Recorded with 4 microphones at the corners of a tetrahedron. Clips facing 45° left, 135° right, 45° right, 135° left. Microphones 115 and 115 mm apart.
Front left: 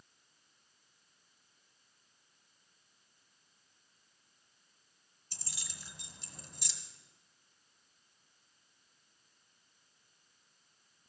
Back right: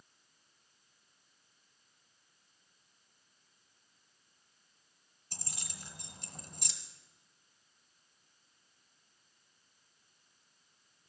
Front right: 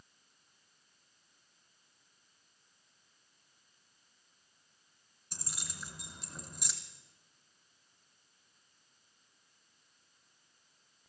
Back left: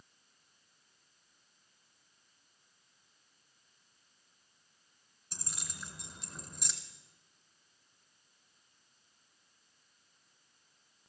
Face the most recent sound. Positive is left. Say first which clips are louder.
# back right 3 dB, even
turn(degrees=-135)